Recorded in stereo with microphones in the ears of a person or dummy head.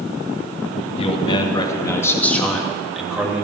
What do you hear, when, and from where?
1.0 s a man speaking: 30° left (ahead or behind), 2 m; by 3.4 s 15° right (ahead or behind), 2.5 m